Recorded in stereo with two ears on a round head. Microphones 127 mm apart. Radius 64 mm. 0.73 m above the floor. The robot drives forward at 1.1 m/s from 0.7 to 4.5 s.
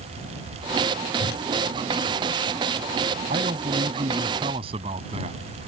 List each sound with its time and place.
1.2 s a whoosh: 85° left
3.3 s a man speaking: 55° right (ahead or behind); by 5.4 s 40° right (ahead or behind)